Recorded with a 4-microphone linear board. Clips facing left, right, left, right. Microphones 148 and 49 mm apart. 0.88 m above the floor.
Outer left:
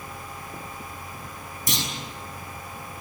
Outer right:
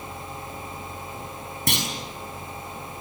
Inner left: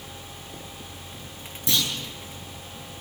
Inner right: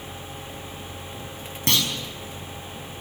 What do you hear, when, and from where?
1.7 s a clunk: 65° right (ahead or behind), 6 m